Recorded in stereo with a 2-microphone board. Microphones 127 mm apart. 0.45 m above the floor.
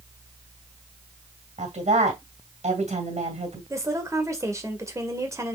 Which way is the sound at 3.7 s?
25° right (ahead or behind).